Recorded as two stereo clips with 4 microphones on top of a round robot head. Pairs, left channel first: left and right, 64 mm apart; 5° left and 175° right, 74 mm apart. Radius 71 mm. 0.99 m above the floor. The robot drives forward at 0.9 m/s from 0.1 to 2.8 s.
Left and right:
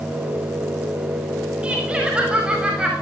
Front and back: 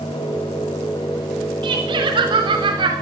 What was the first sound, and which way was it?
Laughter, 165° right.